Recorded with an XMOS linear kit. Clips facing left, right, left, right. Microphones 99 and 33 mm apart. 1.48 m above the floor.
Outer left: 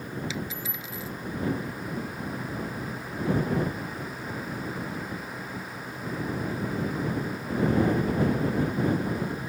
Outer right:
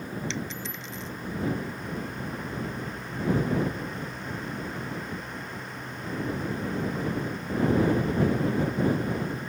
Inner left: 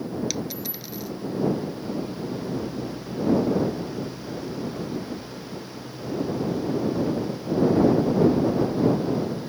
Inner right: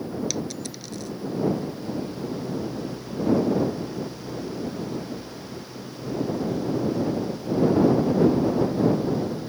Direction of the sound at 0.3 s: 5° left (ahead or behind).